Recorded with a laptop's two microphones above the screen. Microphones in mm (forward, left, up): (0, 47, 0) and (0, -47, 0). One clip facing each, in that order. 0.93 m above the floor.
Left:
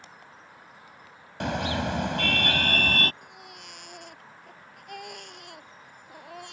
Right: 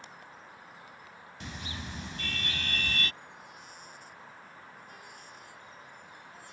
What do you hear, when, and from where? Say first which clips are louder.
1.4 s a car horn: left 15 dB; 80° left; by 3.1 s 55° left (ahead or behind)
3.2 s a baby crying: left 2 dB; 75° left (ahead or behind)